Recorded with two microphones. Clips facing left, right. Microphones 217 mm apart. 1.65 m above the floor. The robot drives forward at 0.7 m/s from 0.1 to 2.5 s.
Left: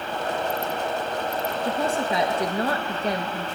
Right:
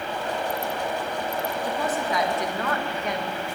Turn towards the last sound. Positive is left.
turn(degrees=35)  # may be behind; listen again after turning